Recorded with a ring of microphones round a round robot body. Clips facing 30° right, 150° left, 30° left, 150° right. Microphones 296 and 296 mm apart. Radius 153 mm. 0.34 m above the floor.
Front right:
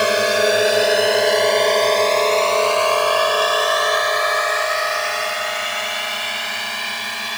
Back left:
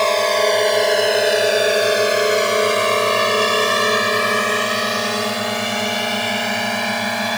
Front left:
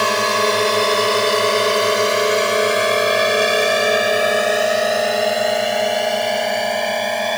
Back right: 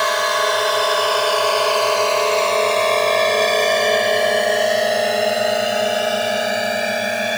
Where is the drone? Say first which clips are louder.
Even, front left 3 dB; 35° left; by 7.4 s 130° left.